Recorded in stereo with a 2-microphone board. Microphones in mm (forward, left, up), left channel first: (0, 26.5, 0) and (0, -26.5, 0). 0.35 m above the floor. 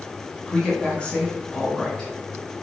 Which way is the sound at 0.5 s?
20° left (ahead or behind).